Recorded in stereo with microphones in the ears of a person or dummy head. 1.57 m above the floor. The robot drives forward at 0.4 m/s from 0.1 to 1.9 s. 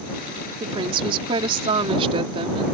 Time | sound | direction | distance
0.6 | a woman speaking | 30° right (ahead or behind) | ?